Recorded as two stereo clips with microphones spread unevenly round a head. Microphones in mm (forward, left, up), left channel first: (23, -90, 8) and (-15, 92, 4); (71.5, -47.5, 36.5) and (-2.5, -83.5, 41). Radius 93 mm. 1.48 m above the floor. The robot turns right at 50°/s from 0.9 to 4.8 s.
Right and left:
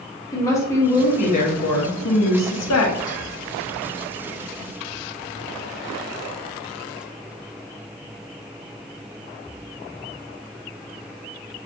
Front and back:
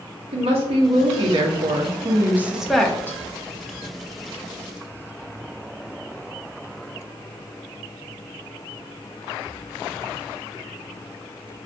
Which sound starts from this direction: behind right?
A woman speaking, at 0.3 s.